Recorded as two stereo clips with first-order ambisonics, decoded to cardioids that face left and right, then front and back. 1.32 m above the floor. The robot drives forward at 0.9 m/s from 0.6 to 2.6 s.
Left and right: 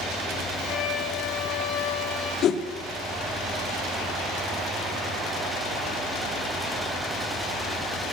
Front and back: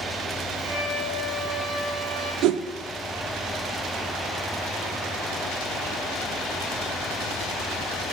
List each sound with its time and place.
0.7 s a violin: 85° left, 3.5 m; by 2.3 s 110° left, 3.5 m
2.4 s a whoosh: 140° left, 0.6 m; by 2.6 s 150° left, 0.7 m